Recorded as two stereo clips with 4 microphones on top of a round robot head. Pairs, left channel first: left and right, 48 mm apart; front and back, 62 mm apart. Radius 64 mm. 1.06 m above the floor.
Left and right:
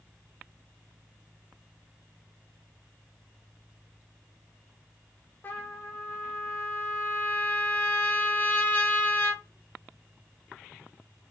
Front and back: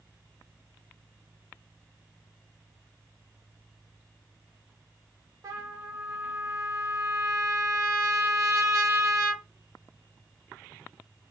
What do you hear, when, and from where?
5.4 s a trumpet: 145° left, 1.4 m